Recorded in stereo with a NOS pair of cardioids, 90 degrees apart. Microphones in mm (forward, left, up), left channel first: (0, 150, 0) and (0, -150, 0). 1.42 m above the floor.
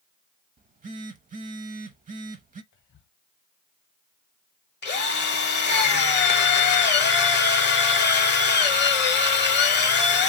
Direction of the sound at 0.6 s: 30° right.